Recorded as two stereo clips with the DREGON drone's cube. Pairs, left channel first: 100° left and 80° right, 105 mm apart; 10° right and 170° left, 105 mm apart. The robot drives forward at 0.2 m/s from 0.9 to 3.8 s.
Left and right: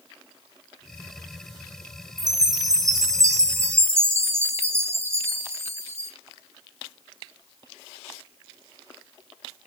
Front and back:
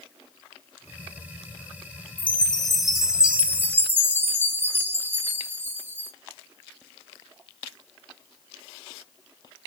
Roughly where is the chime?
Right.